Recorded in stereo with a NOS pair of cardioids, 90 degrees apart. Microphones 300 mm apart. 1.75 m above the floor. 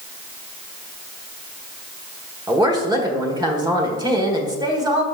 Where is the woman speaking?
15° right, 1.6 m.